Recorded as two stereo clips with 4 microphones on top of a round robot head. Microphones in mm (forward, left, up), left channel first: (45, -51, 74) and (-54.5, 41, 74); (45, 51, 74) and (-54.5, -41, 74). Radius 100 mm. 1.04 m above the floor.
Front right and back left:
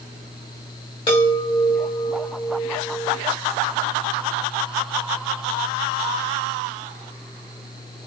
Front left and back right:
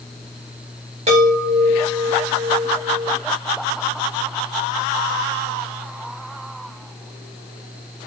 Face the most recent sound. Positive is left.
turn(degrees=-95)